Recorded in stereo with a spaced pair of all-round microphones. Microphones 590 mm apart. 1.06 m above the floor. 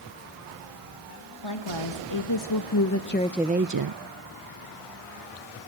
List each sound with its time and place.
1.4 s a woman speaking: 50° left (ahead or behind), 1.9 m; by 4.0 s 55° right (ahead or behind), 0.6 m